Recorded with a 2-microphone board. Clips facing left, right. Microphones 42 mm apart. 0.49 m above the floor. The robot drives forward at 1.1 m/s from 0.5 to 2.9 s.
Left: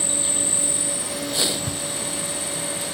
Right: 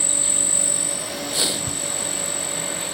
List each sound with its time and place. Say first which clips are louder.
0.0 s an insect: left 1 dB; 10° left (ahead or behind); by 3.0 s 5° left (ahead or behind)
1.7 s knocking: left 1 dB; 5° left (ahead or behind)